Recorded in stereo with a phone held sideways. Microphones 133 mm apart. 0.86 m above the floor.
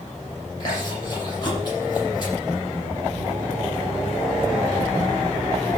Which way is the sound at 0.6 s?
35° left (ahead or behind).